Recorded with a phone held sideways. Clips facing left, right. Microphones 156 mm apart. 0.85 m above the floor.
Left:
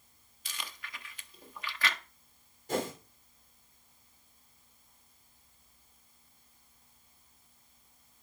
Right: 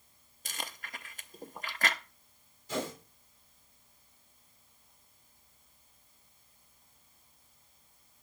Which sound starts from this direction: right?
Chewing, at 0.5 s.